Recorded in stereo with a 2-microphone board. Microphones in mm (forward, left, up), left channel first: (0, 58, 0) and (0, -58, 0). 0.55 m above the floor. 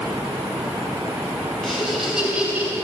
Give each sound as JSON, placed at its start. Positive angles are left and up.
{"t": 1.6, "sound": "laughter", "side_deg": 5, "distance_m": 3.5}